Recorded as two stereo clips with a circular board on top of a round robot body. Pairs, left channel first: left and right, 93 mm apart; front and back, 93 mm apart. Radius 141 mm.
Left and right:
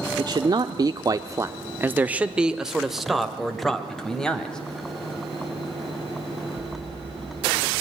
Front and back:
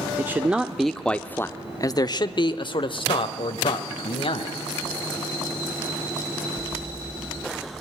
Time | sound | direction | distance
0.2 | a man speaking | 120° right | 1.2 m